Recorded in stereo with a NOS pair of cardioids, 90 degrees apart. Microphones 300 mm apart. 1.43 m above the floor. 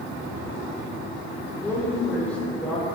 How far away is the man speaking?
About 5.5 m.